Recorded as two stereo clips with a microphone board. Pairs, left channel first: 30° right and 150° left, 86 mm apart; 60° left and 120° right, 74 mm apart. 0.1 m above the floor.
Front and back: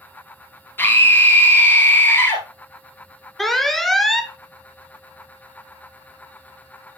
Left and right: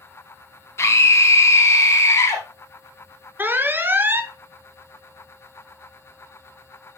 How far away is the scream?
About 1.7 m.